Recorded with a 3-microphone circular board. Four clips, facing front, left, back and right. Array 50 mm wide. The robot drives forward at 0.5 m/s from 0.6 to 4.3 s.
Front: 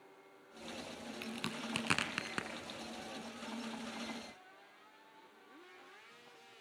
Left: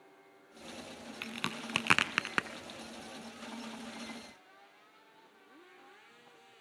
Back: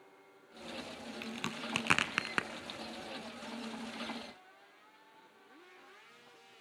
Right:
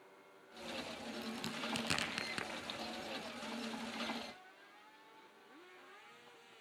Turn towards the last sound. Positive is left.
turn(degrees=145)